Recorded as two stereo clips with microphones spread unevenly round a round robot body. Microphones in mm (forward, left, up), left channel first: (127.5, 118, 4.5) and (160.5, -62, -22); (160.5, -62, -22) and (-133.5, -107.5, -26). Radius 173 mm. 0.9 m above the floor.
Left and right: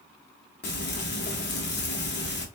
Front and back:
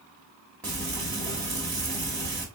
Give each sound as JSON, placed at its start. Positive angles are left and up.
{"t": 0.6, "sound": "frying", "azimuth_deg": 95, "distance_m": 1.3}